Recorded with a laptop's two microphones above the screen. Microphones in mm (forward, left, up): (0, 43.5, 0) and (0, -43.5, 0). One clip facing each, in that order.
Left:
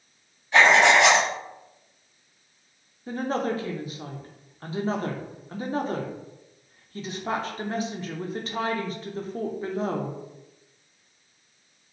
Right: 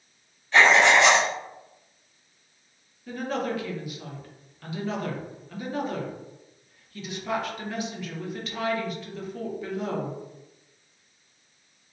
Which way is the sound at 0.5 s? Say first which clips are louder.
Left 1 dB; 10° left (ahead or behind).